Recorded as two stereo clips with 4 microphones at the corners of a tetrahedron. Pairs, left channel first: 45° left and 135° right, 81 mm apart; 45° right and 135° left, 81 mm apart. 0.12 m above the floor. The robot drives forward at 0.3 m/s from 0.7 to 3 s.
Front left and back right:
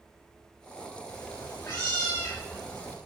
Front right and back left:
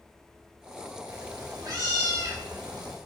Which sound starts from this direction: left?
A cat meowing, at 1.1 s.